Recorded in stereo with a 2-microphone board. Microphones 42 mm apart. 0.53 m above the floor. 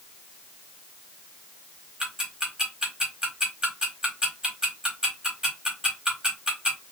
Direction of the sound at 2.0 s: 20° right (ahead or behind).